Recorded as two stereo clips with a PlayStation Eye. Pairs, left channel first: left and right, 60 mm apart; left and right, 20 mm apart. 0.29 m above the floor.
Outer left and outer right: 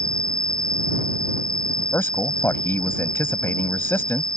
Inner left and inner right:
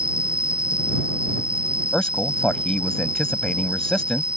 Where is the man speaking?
40° left (ahead or behind).